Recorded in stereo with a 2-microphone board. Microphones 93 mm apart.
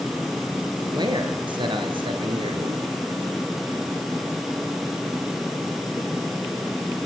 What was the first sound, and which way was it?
A man speaking, 50° right (ahead or behind).